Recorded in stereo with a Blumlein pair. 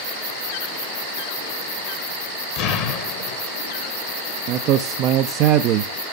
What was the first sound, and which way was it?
An explosion, 40° left.